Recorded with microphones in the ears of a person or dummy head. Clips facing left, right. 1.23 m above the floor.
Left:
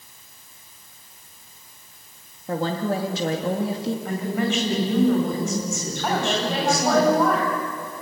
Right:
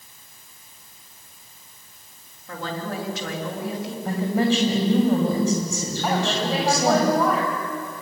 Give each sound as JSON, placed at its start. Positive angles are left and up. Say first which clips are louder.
{"t": 2.5, "sound": "a woman speaking", "louder": "left 6 dB", "side_deg": 25, "distance_m": 2.5}
{"t": 4.0, "sound": "a woman speaking", "louder": "right 7 dB", "side_deg": -25, "distance_m": 7.0}
{"t": 6.0, "sound": "a woman speaking", "louder": "even", "side_deg": 0, "distance_m": 7.5}